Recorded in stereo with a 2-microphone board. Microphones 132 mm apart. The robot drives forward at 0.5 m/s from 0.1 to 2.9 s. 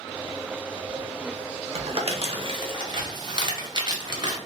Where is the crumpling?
55° right (ahead or behind), 0.7 m; by 4.4 s 40° right (ahead or behind), 0.9 m.